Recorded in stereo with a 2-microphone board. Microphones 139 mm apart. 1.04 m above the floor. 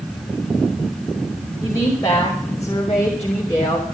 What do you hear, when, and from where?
1.6 s a woman speaking: 25° left (ahead or behind), 5 m